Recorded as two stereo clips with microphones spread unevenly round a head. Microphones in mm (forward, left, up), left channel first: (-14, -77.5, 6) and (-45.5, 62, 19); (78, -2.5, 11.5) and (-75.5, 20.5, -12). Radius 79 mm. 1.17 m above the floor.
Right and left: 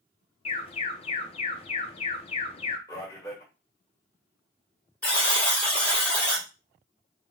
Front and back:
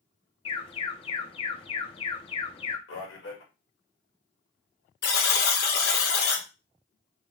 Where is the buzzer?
5° left, 1.1 m.